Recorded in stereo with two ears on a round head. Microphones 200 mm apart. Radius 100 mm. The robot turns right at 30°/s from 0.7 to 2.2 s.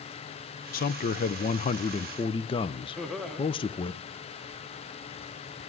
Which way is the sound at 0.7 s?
100° left.